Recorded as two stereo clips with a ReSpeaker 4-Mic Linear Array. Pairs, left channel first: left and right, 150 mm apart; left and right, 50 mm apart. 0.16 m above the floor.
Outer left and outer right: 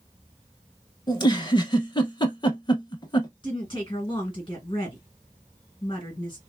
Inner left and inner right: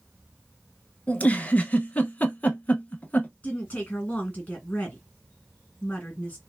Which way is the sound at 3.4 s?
30° left (ahead or behind).